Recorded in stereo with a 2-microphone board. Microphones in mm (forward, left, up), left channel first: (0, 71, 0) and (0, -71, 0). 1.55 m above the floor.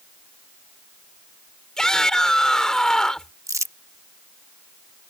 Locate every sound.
1.8 s a shout: 5° left (ahead or behind)
3.5 s crumpling: 20° right (ahead or behind)